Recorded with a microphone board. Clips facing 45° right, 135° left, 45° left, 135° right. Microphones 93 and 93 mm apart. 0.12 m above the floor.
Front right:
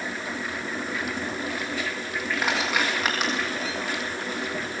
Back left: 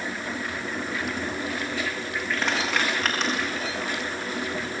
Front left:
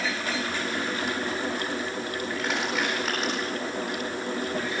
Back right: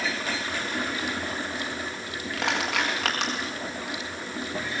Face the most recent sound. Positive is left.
turn(degrees=-130)